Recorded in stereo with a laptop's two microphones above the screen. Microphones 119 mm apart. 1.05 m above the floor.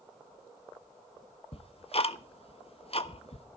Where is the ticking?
50° left (ahead or behind), 1.1 m.